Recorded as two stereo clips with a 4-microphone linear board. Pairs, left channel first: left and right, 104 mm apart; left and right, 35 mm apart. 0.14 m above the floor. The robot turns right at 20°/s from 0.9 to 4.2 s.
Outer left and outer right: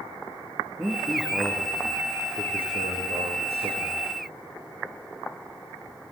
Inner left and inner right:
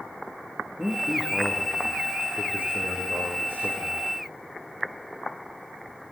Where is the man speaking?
155° right, 5.5 m; by 4.1 s 90° right, 5.5 m.